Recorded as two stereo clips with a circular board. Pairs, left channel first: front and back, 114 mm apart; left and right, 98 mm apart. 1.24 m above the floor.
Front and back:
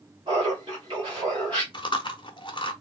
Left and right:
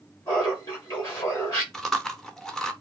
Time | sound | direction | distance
0.3 | laughter | 135° left | 2 m
1.7 | chewing | 5° left | 0.7 m